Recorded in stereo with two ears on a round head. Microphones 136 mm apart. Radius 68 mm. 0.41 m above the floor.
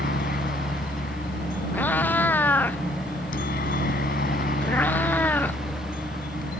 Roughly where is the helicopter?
Left.